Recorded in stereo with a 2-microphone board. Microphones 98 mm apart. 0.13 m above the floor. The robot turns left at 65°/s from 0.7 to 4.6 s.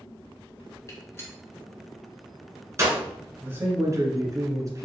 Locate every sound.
0.9 s a gunshot: 35° left (ahead or behind), 1.3 m; by 3.0 s 35° right (ahead or behind), 1.3 m
3.4 s a man speaking: 30° right, 1.3 m; by 4.8 s 110° right, 1.3 m